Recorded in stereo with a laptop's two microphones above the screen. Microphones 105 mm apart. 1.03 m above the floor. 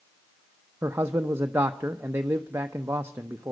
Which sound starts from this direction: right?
A man speaking, at 0.8 s.